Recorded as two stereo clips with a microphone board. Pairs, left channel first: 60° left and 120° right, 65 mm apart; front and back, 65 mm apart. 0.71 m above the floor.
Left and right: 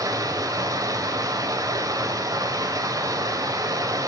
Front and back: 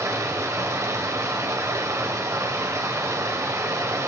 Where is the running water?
140° right, 2 m.